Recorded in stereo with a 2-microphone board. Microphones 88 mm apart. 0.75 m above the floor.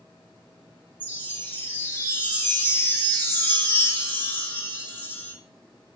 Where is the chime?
25° left (ahead or behind), 0.6 m.